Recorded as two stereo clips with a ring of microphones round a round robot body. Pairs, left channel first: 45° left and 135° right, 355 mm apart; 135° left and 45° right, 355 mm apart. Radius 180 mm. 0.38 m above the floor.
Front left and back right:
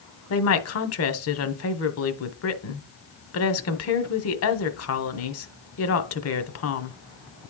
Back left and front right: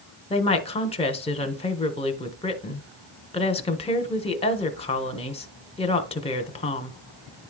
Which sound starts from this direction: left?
A woman speaking, at 0.3 s.